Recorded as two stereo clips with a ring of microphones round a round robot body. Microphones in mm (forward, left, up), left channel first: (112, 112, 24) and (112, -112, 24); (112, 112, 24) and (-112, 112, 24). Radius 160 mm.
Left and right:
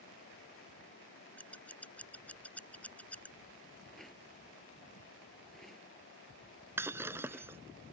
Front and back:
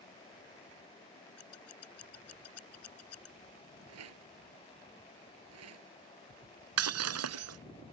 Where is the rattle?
Straight behind.